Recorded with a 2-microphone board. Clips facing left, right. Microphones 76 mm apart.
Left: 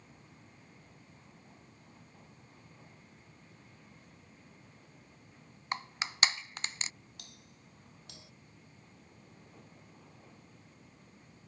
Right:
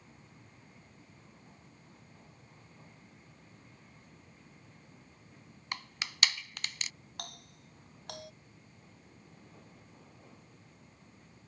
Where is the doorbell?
60° right (ahead or behind).